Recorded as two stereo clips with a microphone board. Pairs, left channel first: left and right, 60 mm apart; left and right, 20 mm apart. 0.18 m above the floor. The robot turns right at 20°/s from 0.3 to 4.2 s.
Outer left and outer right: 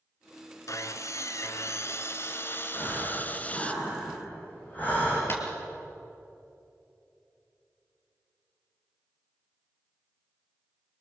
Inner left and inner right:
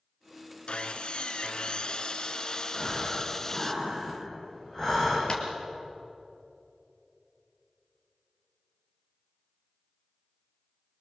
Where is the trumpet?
No trumpet in this recording.